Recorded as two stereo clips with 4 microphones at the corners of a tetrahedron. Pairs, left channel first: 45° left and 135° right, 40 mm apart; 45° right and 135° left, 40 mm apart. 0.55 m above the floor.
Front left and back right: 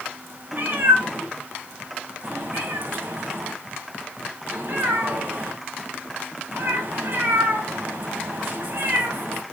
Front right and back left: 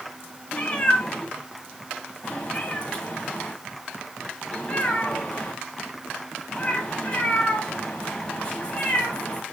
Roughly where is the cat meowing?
Right.